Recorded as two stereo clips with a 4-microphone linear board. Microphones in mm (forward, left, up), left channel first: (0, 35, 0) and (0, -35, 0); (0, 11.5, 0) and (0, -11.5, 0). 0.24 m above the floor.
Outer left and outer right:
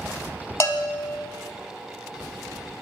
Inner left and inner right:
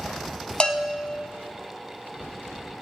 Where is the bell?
45° left (ahead or behind), 0.6 m.